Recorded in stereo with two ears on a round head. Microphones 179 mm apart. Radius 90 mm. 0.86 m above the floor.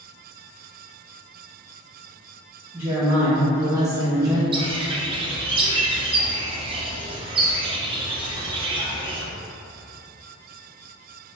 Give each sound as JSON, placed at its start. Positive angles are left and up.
{"t": 2.7, "sound": "a woman speaking", "side_deg": -10, "distance_m": 1.0}
{"t": 4.5, "sound": "a bird", "side_deg": -25, "distance_m": 0.5}